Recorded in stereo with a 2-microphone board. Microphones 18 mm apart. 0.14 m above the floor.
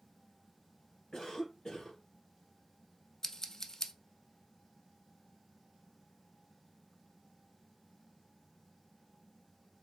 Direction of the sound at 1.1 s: 50° left (ahead or behind).